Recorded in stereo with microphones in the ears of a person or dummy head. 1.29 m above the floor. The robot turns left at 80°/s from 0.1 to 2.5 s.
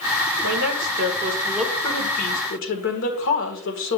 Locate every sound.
0.4 s a woman speaking: 85° right, 1.7 m; by 4.0 s 110° left, 1.7 m